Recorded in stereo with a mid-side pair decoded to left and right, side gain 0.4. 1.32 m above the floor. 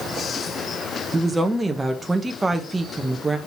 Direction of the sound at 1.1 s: 20° right.